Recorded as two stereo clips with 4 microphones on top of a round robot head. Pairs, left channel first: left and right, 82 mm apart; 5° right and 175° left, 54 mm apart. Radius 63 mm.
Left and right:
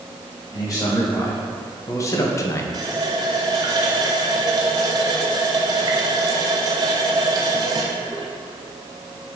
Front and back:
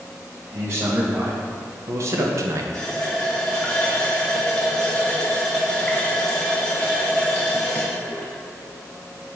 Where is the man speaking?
135° left, 2.5 m; by 2.6 s 150° left, 0.7 m.